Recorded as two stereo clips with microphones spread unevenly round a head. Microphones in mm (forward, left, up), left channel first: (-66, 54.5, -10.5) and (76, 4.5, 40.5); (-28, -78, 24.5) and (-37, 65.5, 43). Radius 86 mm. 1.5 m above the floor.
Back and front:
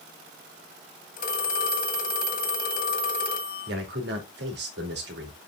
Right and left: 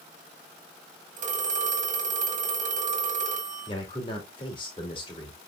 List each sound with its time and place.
1.2 s a phone ringing: 125° left, 2 m
3.7 s a man speaking: 25° right, 2.5 m